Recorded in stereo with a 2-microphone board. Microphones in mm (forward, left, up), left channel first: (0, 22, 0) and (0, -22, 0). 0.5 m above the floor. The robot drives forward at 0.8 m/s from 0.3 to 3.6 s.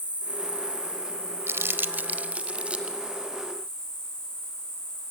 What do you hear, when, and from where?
0.0 s an insect: 35° left (ahead or behind), 3.5 m; by 5.1 s 20° left (ahead or behind), 6 m
1.5 s crumpling: 70° right (ahead or behind), 0.7 m; by 3.0 s 25° right (ahead or behind), 1.6 m